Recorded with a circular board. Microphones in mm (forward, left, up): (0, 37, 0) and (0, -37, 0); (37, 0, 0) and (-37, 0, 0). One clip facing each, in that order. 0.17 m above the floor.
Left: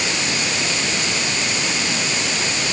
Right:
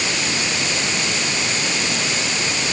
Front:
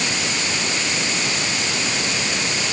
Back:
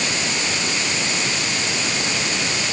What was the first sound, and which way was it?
Only background noise.